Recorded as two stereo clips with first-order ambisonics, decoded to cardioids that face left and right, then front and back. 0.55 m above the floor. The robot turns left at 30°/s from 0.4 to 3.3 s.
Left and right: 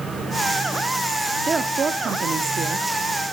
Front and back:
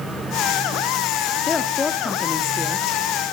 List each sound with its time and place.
1.5 s a woman speaking: 45° right, 0.6 m; by 2.9 s 85° right, 0.6 m